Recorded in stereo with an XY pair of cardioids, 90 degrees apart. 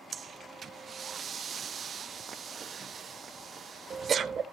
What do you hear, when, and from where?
0.1 s breathing: 50° right, 0.9 m